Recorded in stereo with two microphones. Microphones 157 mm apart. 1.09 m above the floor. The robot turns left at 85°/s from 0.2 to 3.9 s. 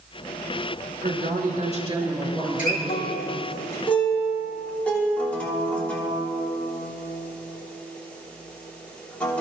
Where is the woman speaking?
75° right, 4 m; by 3.1 s 110° left, 4 m.